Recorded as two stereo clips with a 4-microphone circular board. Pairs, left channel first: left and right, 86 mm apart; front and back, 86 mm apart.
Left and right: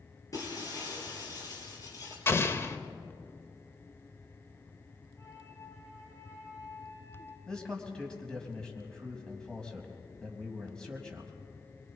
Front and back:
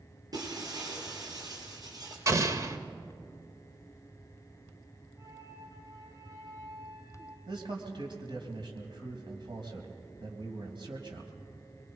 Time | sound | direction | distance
0.3 | breaking glass | 140° left | 4 m
2.3 | an explosion | 140° left | 0.9 m
5.2 | a flute | 140° left | 2 m
7.5 | a man speaking | 170° left | 3 m